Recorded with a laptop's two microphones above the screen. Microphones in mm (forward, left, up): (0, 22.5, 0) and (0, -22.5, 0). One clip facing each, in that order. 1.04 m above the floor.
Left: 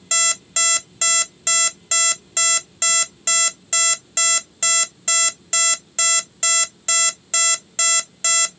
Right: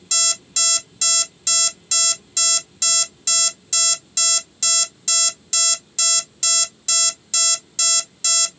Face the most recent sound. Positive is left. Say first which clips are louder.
# left 5 dB
turn(degrees=35)  # may be behind; listen again after turning